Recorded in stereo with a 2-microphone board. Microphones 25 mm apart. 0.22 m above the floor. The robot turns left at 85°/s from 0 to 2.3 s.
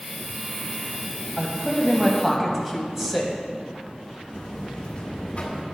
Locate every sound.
1.4 s a man speaking: 20° right (ahead or behind), 1.0 m; by 3.4 s 10° right (ahead or behind), 1.0 m
4.3 s a buzzer: 50° left (ahead or behind), 1.4 m